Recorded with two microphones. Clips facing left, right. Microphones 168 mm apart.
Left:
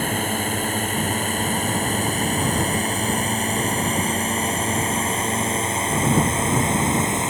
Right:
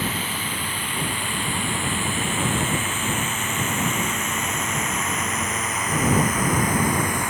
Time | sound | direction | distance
0.0 | a drone | 50° left (ahead or behind) | ?